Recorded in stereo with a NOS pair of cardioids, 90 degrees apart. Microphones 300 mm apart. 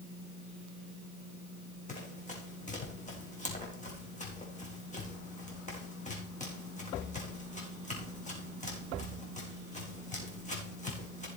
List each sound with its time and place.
1.9 s running footsteps: 25° left, 4.5 m